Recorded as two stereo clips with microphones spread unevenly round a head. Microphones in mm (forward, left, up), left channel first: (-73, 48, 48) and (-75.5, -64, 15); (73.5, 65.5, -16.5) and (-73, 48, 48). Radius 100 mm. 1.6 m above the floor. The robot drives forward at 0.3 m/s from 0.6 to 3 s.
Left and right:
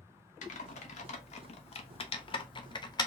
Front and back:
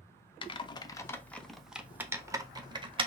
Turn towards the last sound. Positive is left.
turn(degrees=135)